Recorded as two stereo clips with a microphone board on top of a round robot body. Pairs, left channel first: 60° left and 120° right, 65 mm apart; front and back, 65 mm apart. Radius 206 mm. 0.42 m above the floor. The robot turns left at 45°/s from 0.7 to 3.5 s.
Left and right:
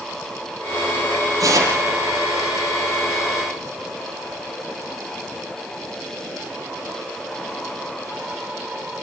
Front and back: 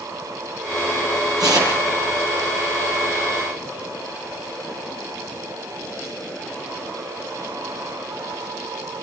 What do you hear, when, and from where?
1.4 s tearing paper: 155° right, 8.5 m; by 1.8 s 175° right, 8.5 m